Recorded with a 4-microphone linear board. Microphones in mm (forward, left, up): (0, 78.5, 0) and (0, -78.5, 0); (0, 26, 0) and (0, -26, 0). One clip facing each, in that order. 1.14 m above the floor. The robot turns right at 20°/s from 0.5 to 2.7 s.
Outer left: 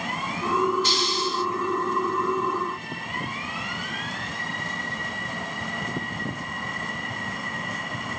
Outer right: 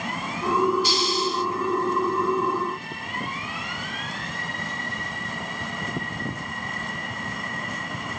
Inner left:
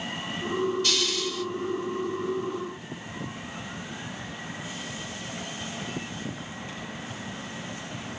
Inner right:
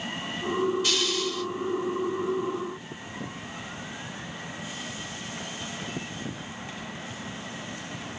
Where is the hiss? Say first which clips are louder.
Outer right 2 dB, inner right 1 dB; 10° right (ahead or behind), 2.0 m; by 1.4 s centre (ahead or behind), 2.0 m.